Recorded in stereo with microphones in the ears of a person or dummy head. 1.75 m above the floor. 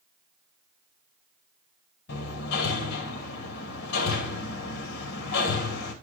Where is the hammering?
60° left (ahead or behind), 2.5 m.